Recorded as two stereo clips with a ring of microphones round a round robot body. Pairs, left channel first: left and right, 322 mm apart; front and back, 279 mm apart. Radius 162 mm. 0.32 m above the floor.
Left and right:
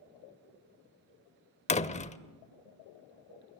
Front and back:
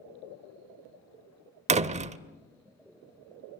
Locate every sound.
1.7 s a door slam: 140° left, 0.7 m